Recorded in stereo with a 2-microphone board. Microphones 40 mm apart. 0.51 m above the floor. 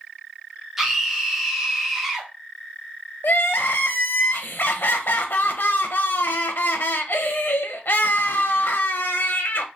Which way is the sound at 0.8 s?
10° right (ahead or behind).